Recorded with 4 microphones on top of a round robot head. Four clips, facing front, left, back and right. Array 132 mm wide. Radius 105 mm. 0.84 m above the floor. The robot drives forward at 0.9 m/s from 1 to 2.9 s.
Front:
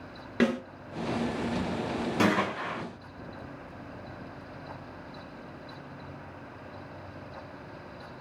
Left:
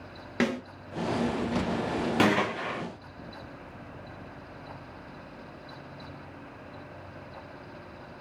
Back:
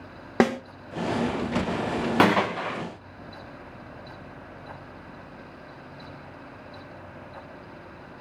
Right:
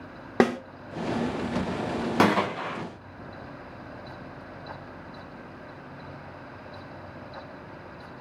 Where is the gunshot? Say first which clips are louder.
Right 3 dB, back 6 dB; 150° right, 0.6 m; by 2.8 s 170° right, 1.0 m.